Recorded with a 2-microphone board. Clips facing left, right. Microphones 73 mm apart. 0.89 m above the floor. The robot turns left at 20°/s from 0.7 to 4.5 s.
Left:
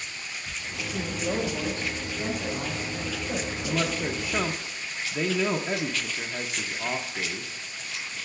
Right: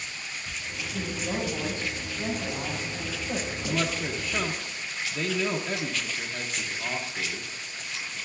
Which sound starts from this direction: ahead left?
A woman speaking, at 0.9 s.